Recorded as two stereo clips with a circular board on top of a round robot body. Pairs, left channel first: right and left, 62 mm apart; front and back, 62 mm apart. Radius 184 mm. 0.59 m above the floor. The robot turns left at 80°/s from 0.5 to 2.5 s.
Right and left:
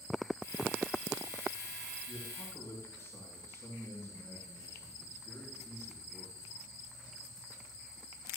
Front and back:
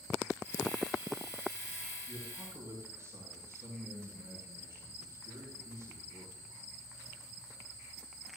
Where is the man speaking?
100° right, 8 m; by 6.8 s 135° right, 8 m.